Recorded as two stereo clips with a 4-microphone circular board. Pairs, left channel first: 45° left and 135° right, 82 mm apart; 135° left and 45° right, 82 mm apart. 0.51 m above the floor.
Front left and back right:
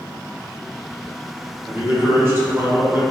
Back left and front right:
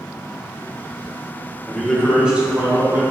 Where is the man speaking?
160° right, 0.8 m; by 3.0 s 95° right, 1.1 m.